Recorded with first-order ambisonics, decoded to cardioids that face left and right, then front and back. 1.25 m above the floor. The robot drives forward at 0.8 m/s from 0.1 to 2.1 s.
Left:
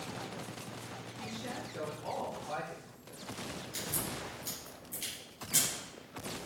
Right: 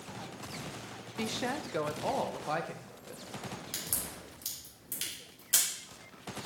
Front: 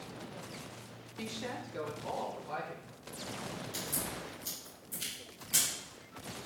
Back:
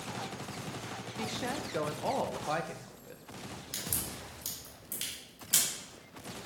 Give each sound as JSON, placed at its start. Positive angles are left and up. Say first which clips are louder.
{"t": 1.2, "sound": "a woman speaking", "louder": "right 8 dB, back 4 dB", "azimuth_deg": -95, "distance_m": 0.9}
{"t": 3.7, "sound": "a crack", "louder": "left 3 dB, back 2 dB", "azimuth_deg": -130, "distance_m": 3.5}